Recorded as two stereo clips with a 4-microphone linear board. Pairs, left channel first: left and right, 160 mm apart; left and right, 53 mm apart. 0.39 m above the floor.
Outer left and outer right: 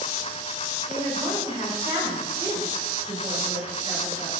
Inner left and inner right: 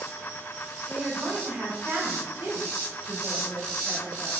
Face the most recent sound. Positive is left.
turn(degrees=-15)  # may be behind; listen again after turning